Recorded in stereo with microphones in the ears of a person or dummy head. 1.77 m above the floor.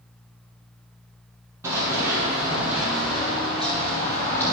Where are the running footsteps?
20° right (ahead or behind), 3 m; by 4.5 s 10° left (ahead or behind), 3 m.